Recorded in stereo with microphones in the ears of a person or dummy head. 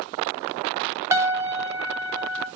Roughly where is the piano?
Centre.